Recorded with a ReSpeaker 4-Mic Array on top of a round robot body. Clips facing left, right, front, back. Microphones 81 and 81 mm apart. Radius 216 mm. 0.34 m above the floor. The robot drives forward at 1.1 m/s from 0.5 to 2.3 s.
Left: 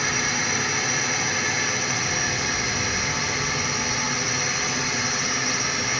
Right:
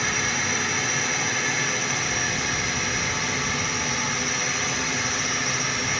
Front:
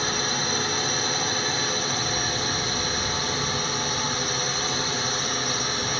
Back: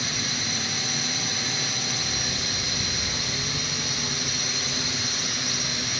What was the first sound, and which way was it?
A drone, 5° left.